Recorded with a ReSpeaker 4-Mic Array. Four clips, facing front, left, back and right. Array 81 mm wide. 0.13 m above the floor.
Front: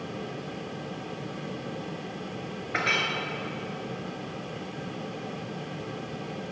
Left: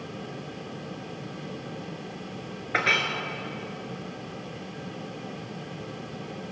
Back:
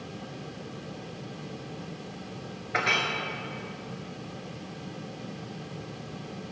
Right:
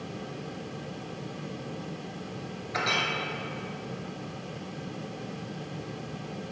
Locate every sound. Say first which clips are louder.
2.7 s a clink: left 3 dB, back 1 dB; 90° left, 1.4 m